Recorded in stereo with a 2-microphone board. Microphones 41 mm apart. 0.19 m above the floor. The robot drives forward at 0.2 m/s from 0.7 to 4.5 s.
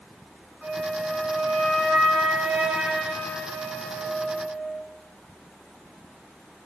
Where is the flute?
15° right (ahead or behind), 0.6 m; by 4.8 s 5° right (ahead or behind), 1.3 m.